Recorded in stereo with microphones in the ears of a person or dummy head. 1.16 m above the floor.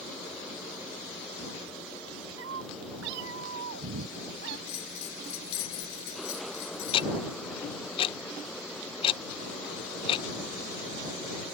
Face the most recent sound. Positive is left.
turn(degrees=30)  # may be behind; listen again after turning